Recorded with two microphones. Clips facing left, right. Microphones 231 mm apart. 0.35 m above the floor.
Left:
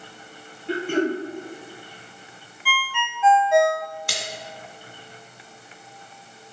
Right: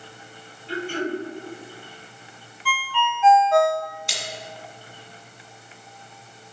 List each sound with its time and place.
0.7 s throat clearing: 60° left (ahead or behind), 1.5 m
2.6 s a ringtone: 10° left (ahead or behind), 0.5 m
4.1 s a splash: 65° left (ahead or behind), 1.8 m